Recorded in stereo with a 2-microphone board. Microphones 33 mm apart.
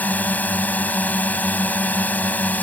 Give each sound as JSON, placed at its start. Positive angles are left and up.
{"t": 0.0, "sound": "a drone", "side_deg": 60}